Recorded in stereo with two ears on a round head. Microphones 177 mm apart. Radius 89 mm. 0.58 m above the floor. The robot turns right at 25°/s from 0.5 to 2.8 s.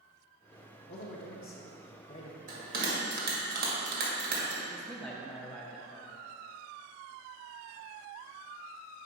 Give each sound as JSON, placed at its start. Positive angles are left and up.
{"t": 0.9, "sound": "a man speaking", "azimuth_deg": 95, "distance_m": 0.9}
{"t": 2.5, "sound": "a bell", "side_deg": -40, "distance_m": 1.8}
{"t": 4.7, "sound": "a man speaking", "side_deg": 5, "distance_m": 0.6}